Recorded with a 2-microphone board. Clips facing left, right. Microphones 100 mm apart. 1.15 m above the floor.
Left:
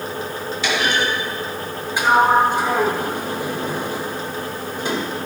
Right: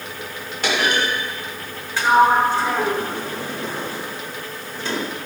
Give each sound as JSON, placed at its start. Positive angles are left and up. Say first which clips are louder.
{"t": 0.6, "sound": "a clunk", "louder": "even", "side_deg": -55, "distance_m": 3.0}
{"t": 2.0, "sound": "a sliding door", "louder": "even", "side_deg": 15, "distance_m": 1.9}